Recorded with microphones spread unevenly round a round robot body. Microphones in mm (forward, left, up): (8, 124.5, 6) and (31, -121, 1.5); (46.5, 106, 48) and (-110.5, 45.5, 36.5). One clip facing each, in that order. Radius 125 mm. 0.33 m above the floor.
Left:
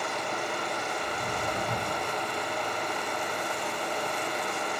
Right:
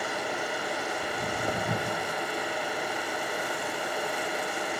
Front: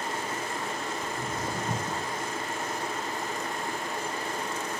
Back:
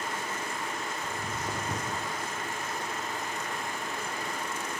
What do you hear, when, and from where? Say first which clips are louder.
1.0 s footsteps: right 2 dB, front 2 dB; 30° right, 1.6 m; by 2.1 s straight ahead, 0.9 m